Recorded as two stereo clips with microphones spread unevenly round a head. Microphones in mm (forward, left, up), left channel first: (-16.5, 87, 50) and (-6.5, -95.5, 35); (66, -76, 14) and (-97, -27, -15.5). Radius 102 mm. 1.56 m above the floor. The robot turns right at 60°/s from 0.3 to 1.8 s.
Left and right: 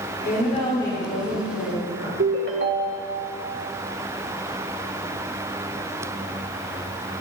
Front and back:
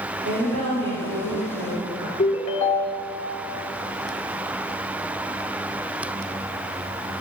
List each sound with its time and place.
0.2 s a woman speaking: 130° left, 6.5 m; by 2.1 s 140° right, 6.5 m
2.2 s a ringtone: 55° right, 2.0 m